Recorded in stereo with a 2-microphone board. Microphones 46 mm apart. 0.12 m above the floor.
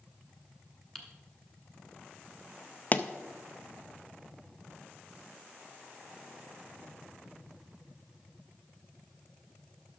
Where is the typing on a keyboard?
5° left (ahead or behind), 1.4 m.